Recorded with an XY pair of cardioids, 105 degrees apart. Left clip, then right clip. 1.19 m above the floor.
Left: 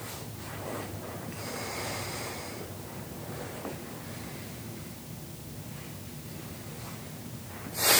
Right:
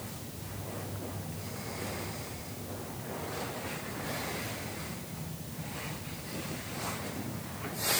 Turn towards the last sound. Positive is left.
No sound to turn to.